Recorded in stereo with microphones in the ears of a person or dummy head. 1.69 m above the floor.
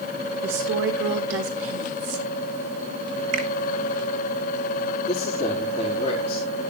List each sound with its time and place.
0.4 s a woman speaking: 50° right (ahead or behind), 2.0 m; by 2.3 s 60° right (ahead or behind), 3 m
3.3 s a finger snap: 40° right (ahead or behind), 1.8 m
5.0 s a man speaking: 25° left (ahead or behind), 4 m